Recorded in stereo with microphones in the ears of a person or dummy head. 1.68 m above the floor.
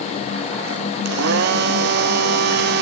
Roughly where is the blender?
Right.